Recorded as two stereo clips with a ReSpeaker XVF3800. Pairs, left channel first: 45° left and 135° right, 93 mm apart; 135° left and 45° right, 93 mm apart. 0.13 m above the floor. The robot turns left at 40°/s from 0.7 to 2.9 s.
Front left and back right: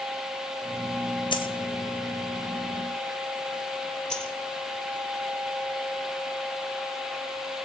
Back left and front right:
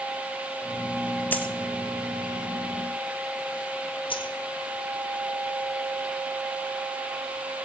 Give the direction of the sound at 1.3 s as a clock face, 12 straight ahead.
10 o'clock.